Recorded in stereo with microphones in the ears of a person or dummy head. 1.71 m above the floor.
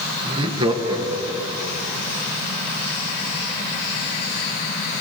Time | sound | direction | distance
0.2 | laughter | 35° right (ahead or behind) | 1.6 m